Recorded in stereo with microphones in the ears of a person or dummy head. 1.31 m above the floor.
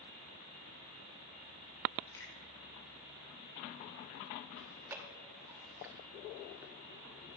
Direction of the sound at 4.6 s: 15° right (ahead or behind).